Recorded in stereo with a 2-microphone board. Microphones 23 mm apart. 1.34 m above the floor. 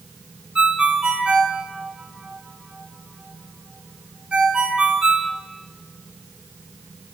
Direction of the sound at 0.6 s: 50° right (ahead or behind).